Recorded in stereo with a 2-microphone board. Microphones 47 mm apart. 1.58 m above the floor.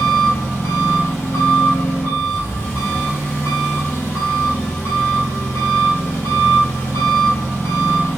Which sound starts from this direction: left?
An engine running, at 0.0 s.